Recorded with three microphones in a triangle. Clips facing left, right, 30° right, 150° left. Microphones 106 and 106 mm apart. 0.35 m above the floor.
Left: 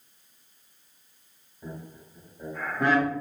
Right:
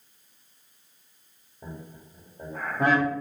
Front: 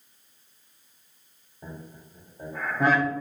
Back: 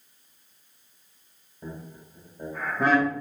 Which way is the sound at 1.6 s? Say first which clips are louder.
Left 1 dB, back 2 dB; 125° right.